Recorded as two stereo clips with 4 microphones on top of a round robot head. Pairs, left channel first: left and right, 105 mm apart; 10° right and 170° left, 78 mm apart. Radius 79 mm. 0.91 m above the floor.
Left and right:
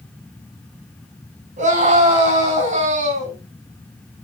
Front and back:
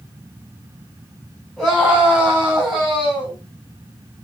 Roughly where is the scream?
Right.